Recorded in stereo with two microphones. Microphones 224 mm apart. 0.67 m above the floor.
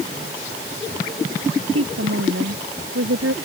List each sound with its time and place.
1.7 s a woman speaking: 85° right